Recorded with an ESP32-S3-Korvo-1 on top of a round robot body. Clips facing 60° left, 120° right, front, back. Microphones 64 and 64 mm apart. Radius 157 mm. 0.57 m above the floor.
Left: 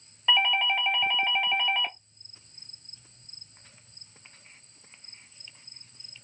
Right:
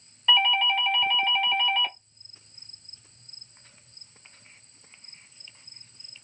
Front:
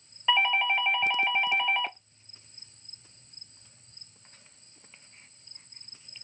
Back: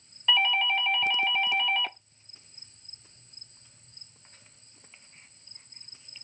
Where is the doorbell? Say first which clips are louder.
Right 2 dB, front 1 dB; 10° left, 1.0 m.